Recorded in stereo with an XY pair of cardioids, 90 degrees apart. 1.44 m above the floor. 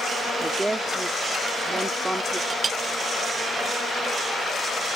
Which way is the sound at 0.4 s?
20° right.